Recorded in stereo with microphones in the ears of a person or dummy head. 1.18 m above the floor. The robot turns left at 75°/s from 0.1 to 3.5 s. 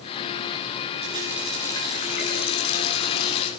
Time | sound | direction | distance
1.0 | a running tap | 145° right | 7.5 m